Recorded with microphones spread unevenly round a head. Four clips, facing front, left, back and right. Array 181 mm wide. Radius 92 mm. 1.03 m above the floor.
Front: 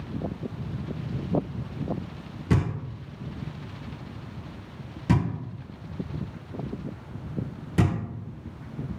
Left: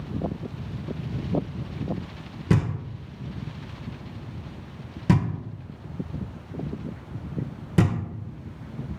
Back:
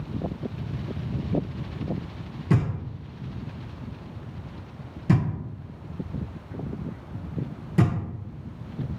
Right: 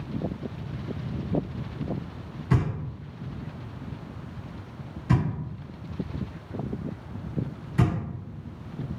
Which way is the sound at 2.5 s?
85° left.